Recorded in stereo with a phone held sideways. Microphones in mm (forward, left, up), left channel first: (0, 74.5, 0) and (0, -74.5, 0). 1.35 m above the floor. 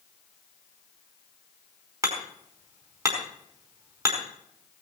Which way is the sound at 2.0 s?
25° right (ahead or behind).